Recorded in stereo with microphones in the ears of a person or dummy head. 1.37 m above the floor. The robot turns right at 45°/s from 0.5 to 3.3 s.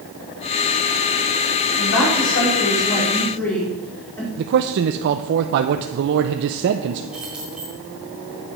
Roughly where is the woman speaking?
Left.